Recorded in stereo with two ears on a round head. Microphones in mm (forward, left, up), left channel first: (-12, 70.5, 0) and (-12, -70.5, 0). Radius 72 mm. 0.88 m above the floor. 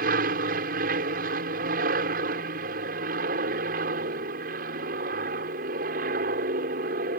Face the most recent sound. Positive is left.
turn(degrees=-60)  # may be behind; listen again after turning